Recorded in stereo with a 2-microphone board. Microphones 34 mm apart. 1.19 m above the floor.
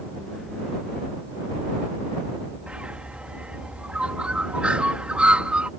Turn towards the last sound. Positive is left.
turn(degrees=-35)  # may be behind; listen again after turning